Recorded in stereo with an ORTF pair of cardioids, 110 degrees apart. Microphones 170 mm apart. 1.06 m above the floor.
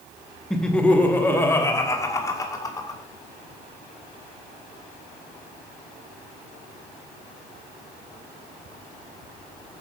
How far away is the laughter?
About 1.4 m.